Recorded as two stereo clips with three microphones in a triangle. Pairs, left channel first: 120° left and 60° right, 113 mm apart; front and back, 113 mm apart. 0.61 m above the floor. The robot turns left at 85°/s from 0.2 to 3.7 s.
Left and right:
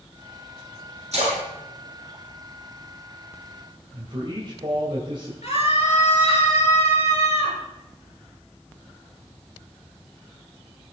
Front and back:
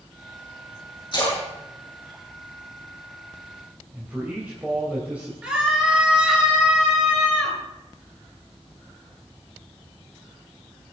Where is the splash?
50° right, 8 m; by 3.0 s 150° left, 8 m.